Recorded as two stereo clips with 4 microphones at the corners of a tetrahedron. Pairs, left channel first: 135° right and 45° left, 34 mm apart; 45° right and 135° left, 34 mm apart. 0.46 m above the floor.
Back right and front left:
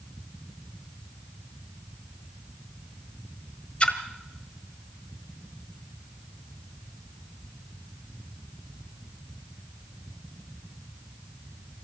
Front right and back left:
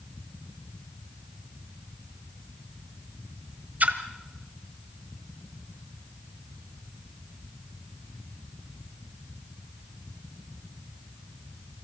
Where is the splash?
170° left, 1.4 m.